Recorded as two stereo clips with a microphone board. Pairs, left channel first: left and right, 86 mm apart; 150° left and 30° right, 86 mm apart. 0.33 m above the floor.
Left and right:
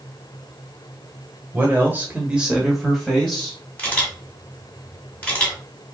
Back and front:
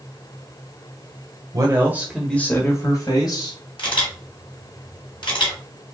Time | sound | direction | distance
1.5 | a man speaking | 35° right | 1.3 m
3.8 | a camera shutter | 160° left | 3 m